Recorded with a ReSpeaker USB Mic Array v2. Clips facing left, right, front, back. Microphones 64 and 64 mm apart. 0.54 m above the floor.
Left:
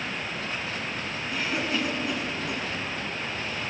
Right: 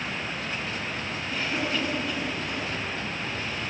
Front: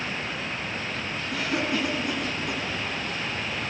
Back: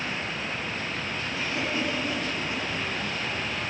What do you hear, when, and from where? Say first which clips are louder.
1.3 s a cough: even, front 4 dB; 5° left, 6 m